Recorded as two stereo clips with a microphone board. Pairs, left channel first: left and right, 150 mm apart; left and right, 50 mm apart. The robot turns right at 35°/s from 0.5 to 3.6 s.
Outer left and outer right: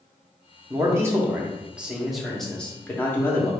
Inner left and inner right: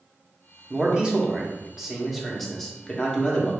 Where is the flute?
I don't hear a flute.